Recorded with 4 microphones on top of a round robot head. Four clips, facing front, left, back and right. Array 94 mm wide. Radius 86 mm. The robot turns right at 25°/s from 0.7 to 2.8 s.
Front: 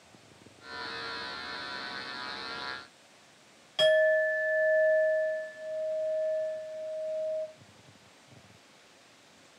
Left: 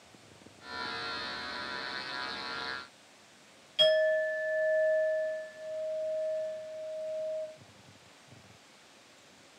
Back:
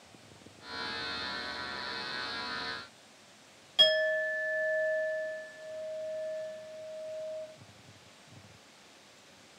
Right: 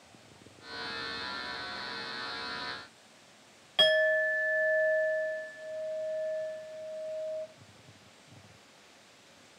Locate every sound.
3.8 s a clink: 70° right, 1.6 m